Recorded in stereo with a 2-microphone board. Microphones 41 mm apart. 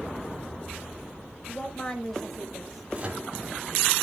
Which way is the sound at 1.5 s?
30° left (ahead or behind).